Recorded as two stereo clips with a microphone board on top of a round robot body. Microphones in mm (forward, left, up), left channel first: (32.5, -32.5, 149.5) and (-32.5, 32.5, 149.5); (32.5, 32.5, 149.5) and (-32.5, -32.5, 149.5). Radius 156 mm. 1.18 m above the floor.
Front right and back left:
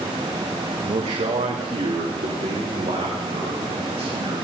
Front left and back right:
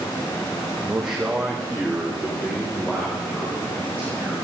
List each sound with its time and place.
0.9 s a man speaking: 150° left, 1.6 m; by 4.3 s 120° left, 6.5 m